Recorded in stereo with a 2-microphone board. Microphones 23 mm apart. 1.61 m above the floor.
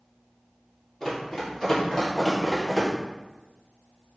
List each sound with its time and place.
1.0 s running footsteps: 20° left (ahead or behind), 1.7 m; by 2.9 s 5° left (ahead or behind), 1.9 m